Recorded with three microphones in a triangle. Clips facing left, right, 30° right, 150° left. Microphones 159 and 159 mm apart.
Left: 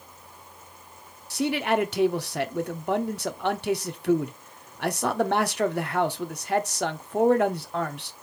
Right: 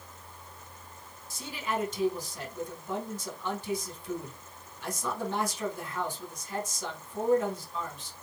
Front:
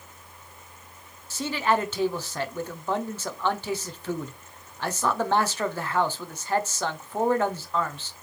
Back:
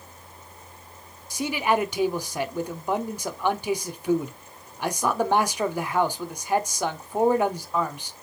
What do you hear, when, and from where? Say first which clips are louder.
1.3 s a man speaking: left 10 dB, back 1 dB; 75° left, 0.6 m